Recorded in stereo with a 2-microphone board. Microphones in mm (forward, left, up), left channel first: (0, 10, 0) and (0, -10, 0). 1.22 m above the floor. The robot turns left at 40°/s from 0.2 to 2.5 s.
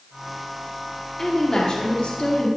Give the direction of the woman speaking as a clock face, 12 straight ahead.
7 o'clock.